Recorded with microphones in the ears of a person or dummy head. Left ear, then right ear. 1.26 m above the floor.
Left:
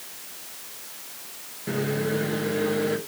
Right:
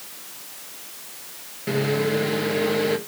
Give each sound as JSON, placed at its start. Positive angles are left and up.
{"t": 1.7, "sound": "a microwave", "side_deg": -15, "distance_m": 1.0}